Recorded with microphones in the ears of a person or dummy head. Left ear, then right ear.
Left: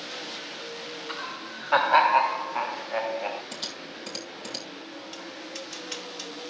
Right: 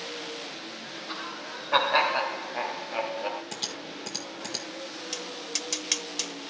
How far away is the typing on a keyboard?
About 1.4 m.